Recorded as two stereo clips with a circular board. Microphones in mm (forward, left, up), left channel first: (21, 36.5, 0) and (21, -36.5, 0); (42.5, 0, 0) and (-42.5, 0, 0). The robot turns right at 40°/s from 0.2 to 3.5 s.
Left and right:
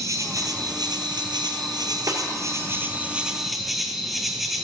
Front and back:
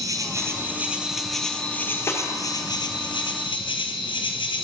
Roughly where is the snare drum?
Ahead right.